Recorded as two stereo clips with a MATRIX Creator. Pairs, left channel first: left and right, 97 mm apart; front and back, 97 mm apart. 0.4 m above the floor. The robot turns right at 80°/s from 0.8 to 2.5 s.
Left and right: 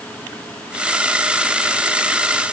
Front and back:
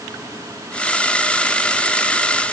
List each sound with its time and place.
Only background noise.